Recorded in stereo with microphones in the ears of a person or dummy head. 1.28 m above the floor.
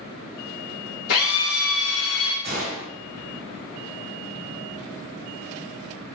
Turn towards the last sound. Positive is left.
turn(degrees=-45)  # may be behind; listen again after turning